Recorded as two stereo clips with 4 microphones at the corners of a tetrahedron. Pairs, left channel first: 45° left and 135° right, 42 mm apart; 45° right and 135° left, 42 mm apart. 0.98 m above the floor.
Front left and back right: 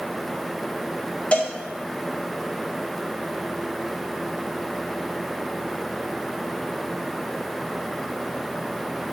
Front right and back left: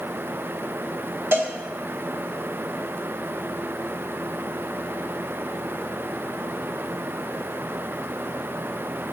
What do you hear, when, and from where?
1.3 s a cowbell: 105° left, 0.6 m